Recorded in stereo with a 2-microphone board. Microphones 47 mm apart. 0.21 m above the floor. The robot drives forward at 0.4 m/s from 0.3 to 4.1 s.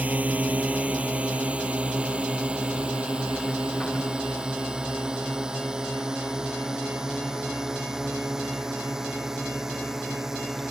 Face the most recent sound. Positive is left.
turn(degrees=-10)  # may be behind; listen again after turning